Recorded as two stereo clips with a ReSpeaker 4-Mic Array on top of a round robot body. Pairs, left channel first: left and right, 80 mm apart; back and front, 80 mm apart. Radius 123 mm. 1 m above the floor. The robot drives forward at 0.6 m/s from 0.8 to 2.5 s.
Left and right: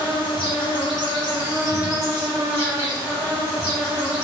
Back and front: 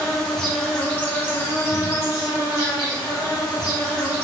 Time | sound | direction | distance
0.0 | an insect | 100° left | 1.1 m